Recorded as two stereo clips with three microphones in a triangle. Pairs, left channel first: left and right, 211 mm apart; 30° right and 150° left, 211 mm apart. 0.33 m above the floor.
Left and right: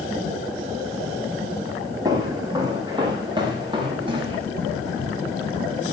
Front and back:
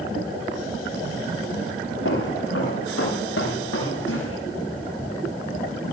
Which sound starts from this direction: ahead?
Footsteps, at 2.0 s.